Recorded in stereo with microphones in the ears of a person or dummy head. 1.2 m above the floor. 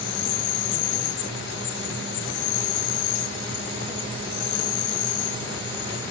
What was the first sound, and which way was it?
An insect, 65° left (ahead or behind).